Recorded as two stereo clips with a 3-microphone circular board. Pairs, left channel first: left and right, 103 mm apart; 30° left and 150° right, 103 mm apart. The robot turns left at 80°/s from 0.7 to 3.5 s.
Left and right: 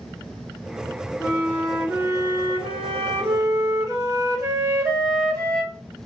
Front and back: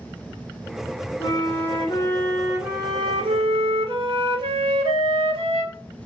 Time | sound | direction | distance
1.2 | a flute | 35° left | 1.5 m